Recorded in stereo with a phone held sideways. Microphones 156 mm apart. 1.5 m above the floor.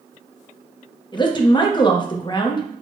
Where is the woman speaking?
30° left (ahead or behind), 0.6 m.